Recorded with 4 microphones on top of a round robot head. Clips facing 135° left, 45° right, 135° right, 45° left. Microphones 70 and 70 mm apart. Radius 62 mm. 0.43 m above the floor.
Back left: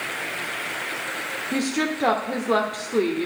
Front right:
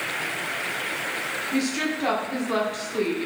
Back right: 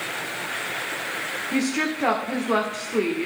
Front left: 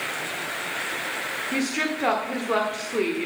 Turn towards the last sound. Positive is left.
turn(degrees=140)